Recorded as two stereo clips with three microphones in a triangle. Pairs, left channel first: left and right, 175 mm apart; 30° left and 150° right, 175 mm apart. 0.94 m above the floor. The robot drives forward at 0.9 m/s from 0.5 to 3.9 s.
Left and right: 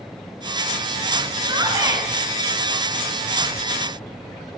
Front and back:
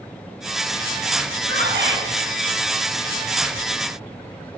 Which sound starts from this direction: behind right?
A shout, at 1.4 s.